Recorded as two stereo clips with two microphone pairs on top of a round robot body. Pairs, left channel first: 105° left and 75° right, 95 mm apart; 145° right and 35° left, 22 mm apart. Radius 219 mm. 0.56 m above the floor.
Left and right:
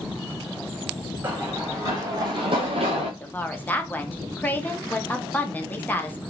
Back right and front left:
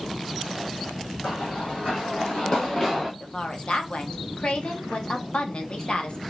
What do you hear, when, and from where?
1.2 s running footsteps: 145° right, 2.5 m; by 3.1 s 75° right, 1.3 m
3.2 s a woman speaking: 170° left, 1.3 m